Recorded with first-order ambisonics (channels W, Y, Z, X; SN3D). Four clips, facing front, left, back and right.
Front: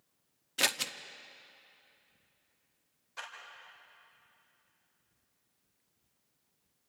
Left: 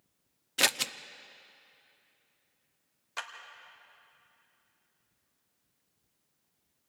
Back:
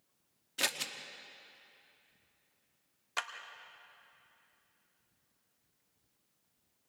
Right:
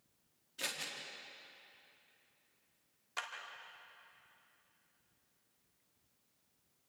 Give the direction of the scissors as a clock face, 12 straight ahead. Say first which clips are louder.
Left 13 dB, front 4 dB; 10 o'clock.